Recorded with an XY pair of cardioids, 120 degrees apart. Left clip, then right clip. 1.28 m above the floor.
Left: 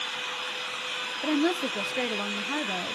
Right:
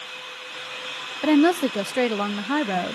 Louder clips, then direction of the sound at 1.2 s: Right 8 dB; 45° right.